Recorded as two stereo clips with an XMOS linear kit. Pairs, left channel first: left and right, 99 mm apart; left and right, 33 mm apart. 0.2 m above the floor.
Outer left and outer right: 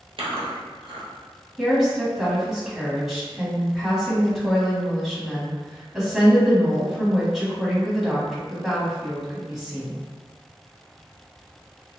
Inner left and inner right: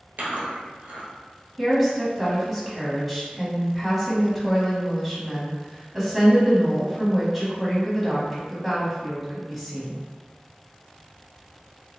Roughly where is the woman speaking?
Centre.